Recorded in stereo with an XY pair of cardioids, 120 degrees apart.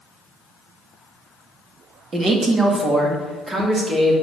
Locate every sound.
2.1 s a man speaking: 30° right, 2 m